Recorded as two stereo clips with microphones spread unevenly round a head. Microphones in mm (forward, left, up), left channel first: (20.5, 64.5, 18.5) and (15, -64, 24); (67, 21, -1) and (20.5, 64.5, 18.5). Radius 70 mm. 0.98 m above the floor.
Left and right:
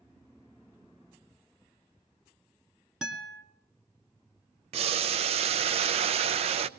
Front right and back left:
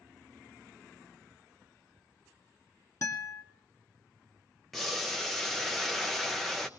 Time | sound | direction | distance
3.0 | a guitar | 10° right | 2 m
4.7 | boiling | 110° right | 0.6 m